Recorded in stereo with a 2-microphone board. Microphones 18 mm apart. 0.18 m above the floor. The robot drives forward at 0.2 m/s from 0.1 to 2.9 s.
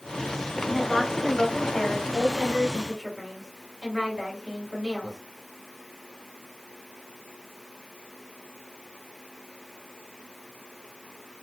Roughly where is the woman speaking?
Left.